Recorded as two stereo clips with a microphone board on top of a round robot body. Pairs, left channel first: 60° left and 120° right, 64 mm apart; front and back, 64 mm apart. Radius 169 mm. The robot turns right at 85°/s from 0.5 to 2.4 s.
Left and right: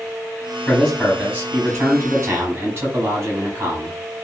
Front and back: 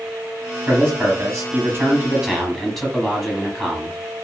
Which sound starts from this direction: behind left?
A man speaking, at 0.7 s.